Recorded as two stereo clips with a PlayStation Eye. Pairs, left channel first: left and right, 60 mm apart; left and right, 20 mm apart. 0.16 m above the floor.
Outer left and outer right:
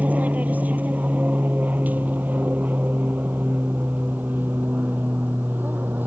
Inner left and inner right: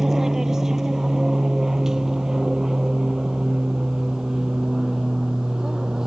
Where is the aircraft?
25° right (ahead or behind); by 6.1 s 30° right (ahead or behind).